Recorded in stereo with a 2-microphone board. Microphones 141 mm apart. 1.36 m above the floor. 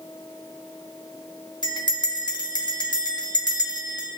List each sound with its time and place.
1.6 s a bell: 30° left (ahead or behind), 0.5 m